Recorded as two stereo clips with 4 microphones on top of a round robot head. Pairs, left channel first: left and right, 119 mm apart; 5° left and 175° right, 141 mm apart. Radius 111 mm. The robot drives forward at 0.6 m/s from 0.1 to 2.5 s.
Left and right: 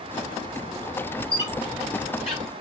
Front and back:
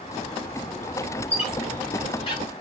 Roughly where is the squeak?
Ahead left.